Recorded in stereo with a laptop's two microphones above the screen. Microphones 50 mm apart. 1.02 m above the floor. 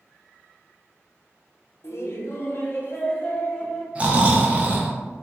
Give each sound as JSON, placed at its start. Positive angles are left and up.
{"t": 1.8, "sound": "laughter", "side_deg": 55, "distance_m": 0.6}
{"t": 4.0, "sound": "snoring", "side_deg": -25, "distance_m": 0.6}